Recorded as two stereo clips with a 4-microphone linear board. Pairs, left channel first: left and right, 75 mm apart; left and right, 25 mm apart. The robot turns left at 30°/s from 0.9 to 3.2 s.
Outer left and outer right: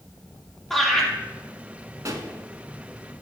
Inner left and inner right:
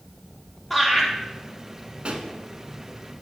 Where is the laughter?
5° left (ahead or behind), 4 m; by 1.1 s 10° left (ahead or behind), 4 m.